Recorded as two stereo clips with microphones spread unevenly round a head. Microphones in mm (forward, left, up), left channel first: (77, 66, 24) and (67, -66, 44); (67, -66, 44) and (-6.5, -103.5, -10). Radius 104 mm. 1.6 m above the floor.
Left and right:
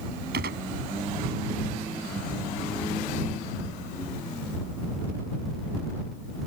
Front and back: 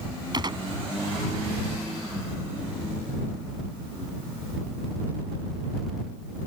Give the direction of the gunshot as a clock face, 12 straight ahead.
4 o'clock.